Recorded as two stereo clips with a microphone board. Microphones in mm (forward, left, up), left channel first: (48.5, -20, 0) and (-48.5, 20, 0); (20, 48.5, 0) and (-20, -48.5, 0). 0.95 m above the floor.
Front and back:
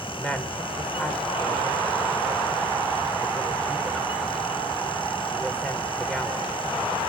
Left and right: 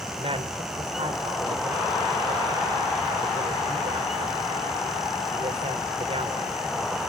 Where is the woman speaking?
100° right, 3.5 m.